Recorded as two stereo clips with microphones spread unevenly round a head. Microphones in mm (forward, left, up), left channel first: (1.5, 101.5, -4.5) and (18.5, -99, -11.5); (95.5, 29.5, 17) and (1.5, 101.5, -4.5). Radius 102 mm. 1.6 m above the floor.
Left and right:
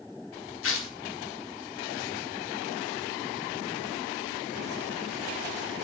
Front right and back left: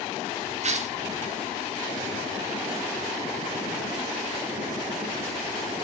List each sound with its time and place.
0.6 s tearing paper: 115° left, 1.8 m